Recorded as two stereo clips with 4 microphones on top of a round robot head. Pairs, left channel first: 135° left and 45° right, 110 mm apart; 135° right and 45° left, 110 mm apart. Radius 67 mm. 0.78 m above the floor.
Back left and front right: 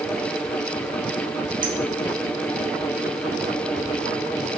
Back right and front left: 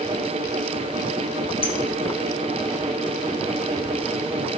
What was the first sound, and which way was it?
A clink, 95° right.